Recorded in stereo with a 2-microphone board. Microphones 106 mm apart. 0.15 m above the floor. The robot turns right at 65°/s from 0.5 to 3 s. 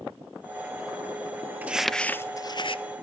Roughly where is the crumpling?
Centre.